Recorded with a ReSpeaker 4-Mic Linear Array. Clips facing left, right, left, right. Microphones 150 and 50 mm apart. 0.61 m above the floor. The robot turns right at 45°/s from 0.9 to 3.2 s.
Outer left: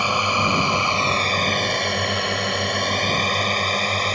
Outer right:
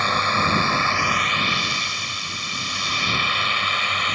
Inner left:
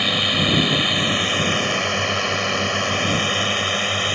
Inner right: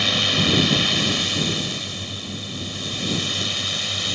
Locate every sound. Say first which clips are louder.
0.0 s a drone: outer left 1 dB, inner left 1 dB; 10° left (ahead or behind); by 4.1 s 35° left (ahead or behind)